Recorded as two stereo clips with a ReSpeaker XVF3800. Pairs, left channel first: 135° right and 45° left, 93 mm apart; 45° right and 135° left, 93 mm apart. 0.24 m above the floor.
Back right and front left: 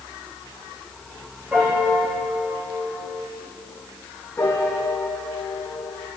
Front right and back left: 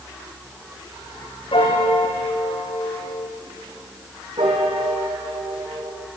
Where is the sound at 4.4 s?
160° left, 4 m.